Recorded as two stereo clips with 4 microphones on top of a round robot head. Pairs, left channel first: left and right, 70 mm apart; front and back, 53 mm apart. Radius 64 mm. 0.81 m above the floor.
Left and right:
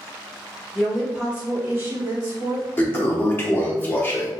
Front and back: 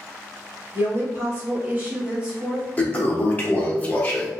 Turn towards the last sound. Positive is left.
turn(degrees=45)